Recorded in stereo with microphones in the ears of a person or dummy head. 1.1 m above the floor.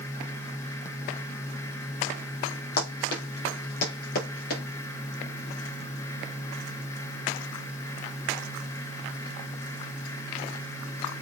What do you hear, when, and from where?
2.8 s running footsteps: 60° left (ahead or behind), 6 m; by 4.6 s 55° left (ahead or behind), 7.5 m